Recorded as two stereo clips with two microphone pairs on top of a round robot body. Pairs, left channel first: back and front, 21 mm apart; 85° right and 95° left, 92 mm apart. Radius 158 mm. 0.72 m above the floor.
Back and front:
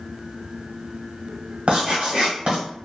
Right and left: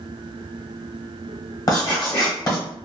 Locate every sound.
1.7 s writing: 35° right, 1.2 m